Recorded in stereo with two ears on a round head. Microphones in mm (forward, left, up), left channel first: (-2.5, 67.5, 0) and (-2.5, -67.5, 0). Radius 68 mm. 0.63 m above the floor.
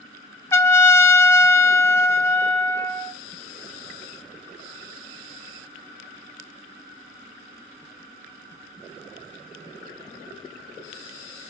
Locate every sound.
0.5 s a trumpet: 15° left (ahead or behind), 1.0 m